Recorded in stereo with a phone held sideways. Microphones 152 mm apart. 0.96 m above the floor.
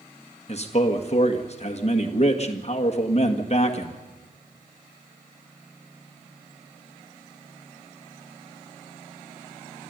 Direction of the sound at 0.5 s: 45° left (ahead or behind).